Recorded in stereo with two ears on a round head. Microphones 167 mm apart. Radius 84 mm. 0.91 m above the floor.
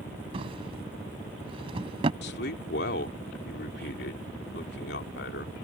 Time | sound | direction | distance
0.3 | a drawer | 30° right (ahead or behind) | ?
2.2 | a man speaking | 60° left (ahead or behind) | ?